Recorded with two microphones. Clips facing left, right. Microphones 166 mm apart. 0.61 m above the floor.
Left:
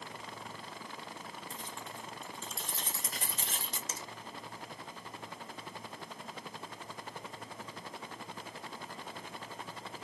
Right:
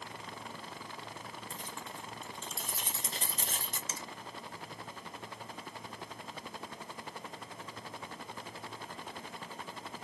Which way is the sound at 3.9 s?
40° left (ahead or behind).